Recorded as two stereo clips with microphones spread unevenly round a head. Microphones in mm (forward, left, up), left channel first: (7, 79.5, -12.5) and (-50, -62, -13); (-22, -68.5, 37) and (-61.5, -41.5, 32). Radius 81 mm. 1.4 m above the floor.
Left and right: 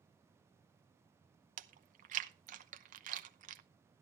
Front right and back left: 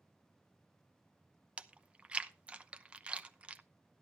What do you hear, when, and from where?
1.6 s chewing: 145° right, 0.8 m